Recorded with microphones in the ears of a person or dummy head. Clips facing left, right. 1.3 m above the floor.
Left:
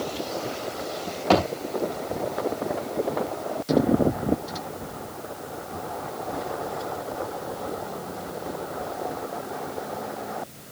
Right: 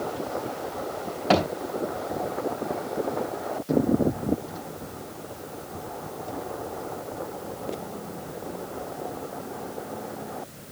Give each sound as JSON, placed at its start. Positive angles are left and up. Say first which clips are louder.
{"t": 1.3, "sound": "a thud", "louder": "left 1 dB", "side_deg": -20, "distance_m": 4.0}